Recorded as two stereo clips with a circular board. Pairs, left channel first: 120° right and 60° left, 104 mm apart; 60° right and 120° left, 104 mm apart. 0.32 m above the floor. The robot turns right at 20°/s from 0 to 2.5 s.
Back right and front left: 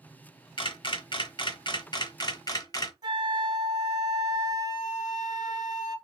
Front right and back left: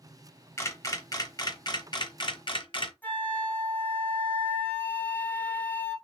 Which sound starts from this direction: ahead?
A flute, at 3.0 s.